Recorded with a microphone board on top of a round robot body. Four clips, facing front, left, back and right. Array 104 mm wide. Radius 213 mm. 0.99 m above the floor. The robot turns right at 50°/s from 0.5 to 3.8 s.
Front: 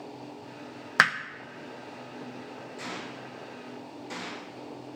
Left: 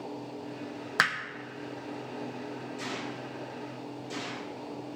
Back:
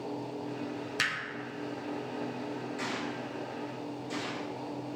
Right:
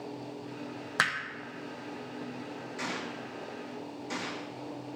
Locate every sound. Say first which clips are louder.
1.0 s hammering: left 2 dB, front 13 dB; 10° left, 1.0 m; by 1.2 s 15° left, 1.0 m
2.8 s a gunshot: right 2 dB, back 3 dB; 115° right, 4.5 m; by 4.5 s 65° right, 4.5 m